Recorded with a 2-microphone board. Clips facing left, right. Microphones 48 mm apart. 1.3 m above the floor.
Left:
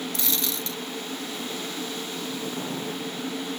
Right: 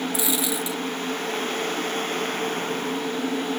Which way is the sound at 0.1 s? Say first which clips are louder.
Right 5 dB; 10° right (ahead or behind).